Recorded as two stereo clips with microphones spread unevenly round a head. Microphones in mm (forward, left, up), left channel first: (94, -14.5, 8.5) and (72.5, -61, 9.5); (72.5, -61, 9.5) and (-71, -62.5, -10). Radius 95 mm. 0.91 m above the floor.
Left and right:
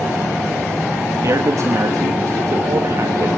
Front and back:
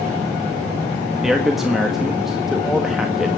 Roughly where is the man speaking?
Right.